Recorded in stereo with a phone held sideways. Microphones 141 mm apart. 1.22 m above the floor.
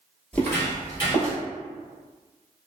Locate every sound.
0.3 s footsteps: 10° left (ahead or behind), 1.4 m; by 1.4 s 40° left (ahead or behind), 1.5 m